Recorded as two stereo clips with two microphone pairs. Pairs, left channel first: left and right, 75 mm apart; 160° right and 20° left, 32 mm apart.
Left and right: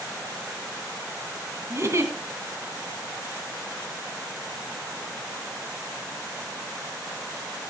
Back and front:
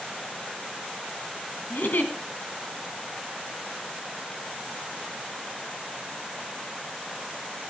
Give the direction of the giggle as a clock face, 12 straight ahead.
5 o'clock.